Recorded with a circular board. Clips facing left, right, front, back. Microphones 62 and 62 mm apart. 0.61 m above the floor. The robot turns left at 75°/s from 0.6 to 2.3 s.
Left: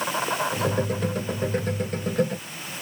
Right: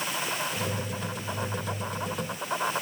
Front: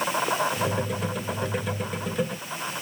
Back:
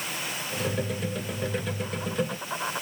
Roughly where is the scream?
No scream in this recording.